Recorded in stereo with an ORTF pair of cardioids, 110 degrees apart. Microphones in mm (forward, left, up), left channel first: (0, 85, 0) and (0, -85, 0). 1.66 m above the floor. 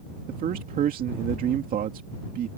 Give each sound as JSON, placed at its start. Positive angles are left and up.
{"t": 0.3, "sound": "a man speaking", "azimuth_deg": -60}